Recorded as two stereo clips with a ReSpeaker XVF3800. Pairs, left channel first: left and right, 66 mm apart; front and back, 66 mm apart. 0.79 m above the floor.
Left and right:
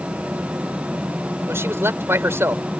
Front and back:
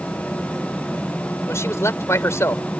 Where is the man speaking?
45° right.